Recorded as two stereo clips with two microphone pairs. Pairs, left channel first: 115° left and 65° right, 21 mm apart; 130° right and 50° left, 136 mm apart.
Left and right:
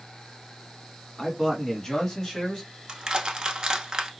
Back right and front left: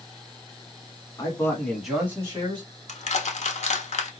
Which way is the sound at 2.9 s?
110° right.